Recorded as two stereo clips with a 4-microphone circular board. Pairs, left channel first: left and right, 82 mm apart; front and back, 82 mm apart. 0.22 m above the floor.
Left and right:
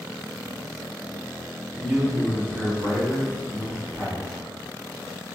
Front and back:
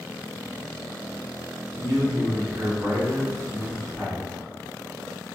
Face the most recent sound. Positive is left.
turn(degrees=-120)